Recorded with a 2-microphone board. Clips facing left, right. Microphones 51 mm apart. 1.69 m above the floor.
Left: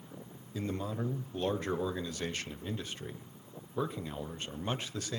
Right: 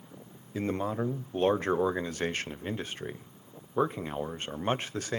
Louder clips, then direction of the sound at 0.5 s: Right 6 dB; 45° right (ahead or behind).